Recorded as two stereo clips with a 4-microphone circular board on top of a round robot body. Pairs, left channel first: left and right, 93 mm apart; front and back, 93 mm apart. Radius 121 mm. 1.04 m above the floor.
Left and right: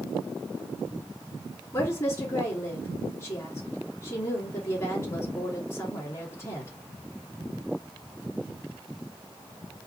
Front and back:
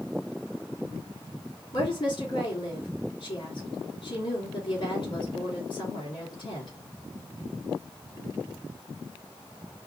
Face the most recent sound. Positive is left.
turn(degrees=30)